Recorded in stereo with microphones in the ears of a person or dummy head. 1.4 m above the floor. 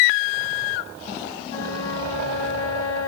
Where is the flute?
65° left (ahead or behind), 3 m.